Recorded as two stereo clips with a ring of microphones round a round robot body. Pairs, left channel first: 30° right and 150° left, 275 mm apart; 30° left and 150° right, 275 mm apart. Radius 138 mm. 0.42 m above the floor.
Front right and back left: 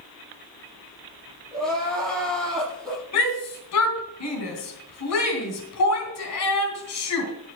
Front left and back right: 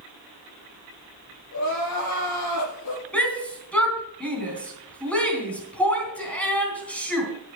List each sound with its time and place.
1.5 s crying: 55° left, 7 m
3.1 s a shout: 55° right, 3.5 m